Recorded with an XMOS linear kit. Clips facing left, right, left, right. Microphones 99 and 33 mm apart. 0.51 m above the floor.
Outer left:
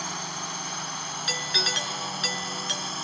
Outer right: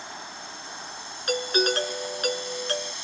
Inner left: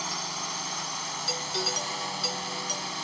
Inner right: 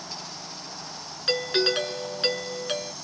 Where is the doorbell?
45° right (ahead or behind).